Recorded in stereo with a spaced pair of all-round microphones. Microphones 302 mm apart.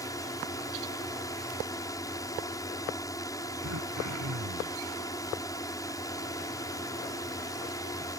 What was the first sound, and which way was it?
A drone, 10° left (ahead or behind).